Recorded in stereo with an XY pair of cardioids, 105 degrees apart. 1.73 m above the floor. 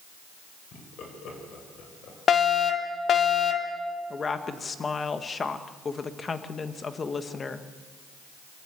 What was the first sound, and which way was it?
Laughter, 65° left.